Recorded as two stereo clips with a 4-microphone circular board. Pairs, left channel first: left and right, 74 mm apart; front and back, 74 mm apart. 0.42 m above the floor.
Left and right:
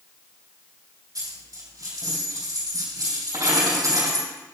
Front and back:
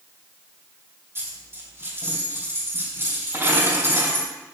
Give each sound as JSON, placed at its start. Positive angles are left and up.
{"t": 1.1, "sound": "a dropped coin", "azimuth_deg": -125, "distance_m": 4.0}